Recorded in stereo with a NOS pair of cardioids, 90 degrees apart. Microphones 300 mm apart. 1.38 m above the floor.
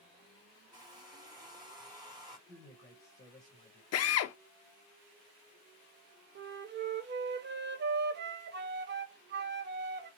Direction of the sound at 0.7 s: 15° right.